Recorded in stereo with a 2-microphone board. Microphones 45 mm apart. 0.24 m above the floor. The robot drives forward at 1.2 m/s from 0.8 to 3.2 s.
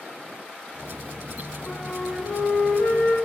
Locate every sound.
1.7 s a flute: 25° left (ahead or behind), 1.6 m; by 3.1 s 30° left (ahead or behind), 1.3 m